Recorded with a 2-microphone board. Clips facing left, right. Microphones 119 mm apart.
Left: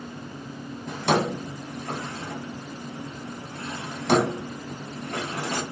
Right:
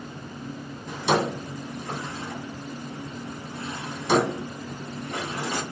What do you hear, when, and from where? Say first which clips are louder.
0.9 s a drawer: even; 55° left (ahead or behind), 1.9 m